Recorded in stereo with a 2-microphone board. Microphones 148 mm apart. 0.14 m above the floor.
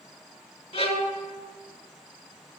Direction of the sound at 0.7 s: 45° left (ahead or behind).